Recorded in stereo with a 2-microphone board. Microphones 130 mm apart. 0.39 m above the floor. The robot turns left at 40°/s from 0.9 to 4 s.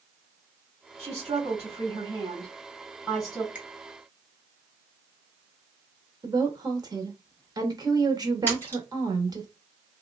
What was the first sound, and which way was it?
A woman speaking, 85° right.